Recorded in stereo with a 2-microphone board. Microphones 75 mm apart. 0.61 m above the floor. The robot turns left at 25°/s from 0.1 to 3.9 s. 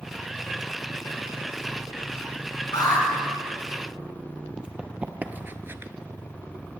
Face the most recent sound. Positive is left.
turn(degrees=-35)  # may be behind; listen again after turning